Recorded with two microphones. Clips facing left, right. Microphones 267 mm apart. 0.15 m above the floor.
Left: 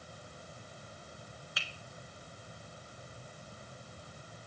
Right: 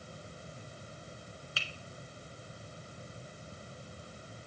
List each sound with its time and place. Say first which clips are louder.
1.6 s a finger snap: right 2 dB; 30° right (ahead or behind), 1.4 m